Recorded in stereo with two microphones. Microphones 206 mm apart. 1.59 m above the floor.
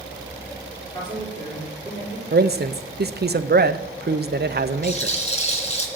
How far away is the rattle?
About 2.5 m.